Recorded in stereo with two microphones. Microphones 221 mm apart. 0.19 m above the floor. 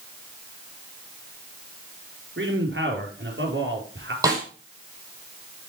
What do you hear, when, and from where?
2.4 s a man speaking: 65° right (ahead or behind), 4.5 m
4.2 s a snare drum: 15° right (ahead or behind), 6.5 m